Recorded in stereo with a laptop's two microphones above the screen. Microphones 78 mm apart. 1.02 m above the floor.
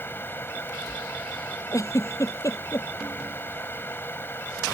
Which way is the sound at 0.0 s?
25° left (ahead or behind).